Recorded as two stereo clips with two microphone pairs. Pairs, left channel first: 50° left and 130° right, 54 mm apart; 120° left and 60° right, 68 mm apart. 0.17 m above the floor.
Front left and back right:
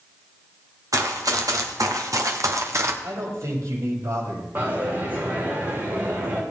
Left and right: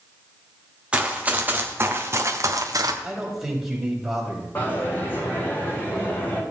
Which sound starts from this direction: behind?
A dropped coin, at 4.5 s.